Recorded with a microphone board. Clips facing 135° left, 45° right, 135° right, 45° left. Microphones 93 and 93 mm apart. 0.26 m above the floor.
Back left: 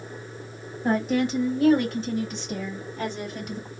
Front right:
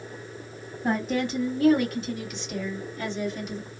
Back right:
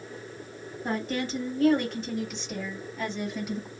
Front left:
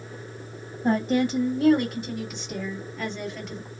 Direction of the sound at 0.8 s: 55° left.